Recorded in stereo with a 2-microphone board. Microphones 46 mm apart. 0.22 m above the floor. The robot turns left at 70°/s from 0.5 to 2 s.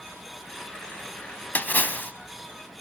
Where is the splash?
115° left, 0.7 m; by 2.1 s 85° left, 0.7 m.